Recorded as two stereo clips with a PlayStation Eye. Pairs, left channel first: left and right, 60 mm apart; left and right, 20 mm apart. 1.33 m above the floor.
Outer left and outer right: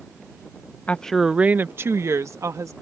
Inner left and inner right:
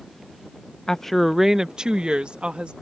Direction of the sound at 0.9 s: 25° left (ahead or behind).